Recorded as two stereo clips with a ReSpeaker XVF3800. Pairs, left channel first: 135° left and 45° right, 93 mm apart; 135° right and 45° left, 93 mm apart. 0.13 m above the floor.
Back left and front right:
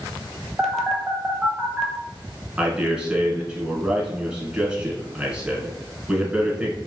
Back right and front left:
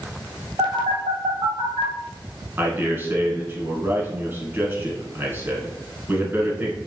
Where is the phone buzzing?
50° left, 0.9 m.